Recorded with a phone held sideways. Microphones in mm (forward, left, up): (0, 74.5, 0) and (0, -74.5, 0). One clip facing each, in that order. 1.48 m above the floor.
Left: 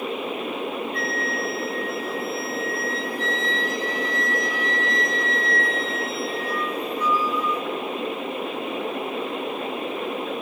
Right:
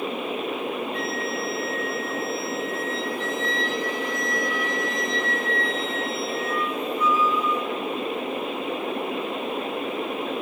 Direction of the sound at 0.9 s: 35° left (ahead or behind).